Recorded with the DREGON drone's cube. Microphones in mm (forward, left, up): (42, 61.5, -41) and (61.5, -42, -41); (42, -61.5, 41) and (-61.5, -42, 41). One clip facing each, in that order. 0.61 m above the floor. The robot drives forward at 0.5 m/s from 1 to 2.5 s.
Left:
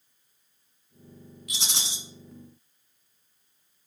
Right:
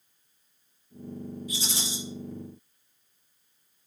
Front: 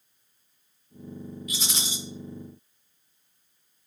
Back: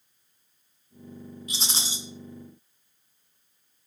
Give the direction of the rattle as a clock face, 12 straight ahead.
8 o'clock.